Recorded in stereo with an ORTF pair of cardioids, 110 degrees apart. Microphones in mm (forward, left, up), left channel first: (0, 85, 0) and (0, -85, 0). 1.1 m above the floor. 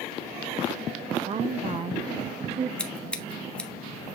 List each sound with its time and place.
1.2 s a woman speaking: 35° right, 0.6 m
2.8 s scissors: 5° left, 1.1 m